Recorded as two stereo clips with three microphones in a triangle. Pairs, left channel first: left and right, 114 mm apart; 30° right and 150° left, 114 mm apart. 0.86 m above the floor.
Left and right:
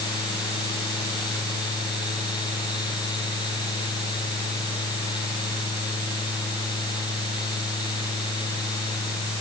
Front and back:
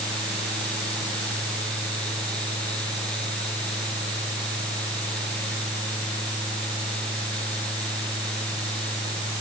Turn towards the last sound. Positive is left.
No sound to turn to.